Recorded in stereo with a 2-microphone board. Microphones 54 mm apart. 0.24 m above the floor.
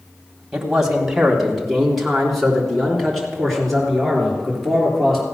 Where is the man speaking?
10° right (ahead or behind), 1.6 m; by 5.2 s 5° left (ahead or behind), 5.5 m.